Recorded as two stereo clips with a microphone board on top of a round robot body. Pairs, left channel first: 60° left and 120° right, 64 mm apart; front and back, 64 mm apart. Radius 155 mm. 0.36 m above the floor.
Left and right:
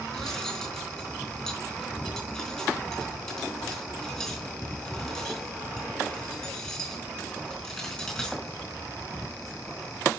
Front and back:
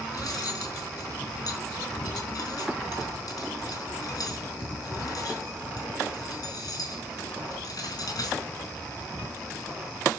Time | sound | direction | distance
0.1 | cutlery clinking | 30° right | 5 m